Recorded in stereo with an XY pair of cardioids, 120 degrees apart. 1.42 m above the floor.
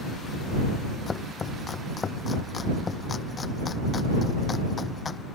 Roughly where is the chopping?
Ahead left.